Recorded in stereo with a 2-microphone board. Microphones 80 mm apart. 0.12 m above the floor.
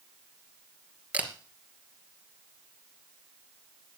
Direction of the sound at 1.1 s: 20° right (ahead or behind).